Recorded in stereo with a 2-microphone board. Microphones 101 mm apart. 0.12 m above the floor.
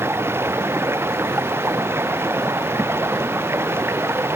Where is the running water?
25° right (ahead or behind).